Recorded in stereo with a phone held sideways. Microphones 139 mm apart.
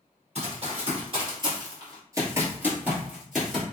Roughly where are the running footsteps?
Right.